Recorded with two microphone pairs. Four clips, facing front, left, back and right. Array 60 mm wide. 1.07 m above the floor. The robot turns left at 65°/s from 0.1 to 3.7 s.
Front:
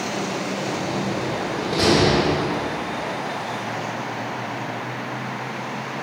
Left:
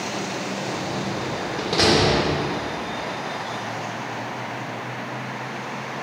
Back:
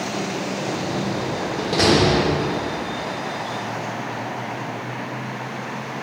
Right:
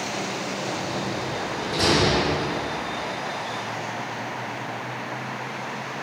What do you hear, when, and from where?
0.7 s a door slam: 175° right, 1.8 m; by 2.2 s 85° left, 1.8 m